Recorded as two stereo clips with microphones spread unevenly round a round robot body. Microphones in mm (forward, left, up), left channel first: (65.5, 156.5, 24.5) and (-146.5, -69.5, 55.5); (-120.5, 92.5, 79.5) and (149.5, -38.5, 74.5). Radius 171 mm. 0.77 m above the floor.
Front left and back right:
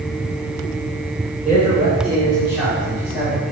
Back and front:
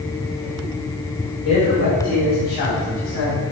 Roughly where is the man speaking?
Behind.